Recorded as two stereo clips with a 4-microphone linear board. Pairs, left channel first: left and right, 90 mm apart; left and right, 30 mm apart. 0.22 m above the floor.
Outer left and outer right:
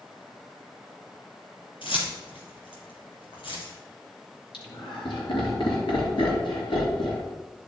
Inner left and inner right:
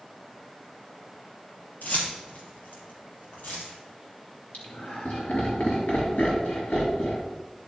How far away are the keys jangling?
About 3 m.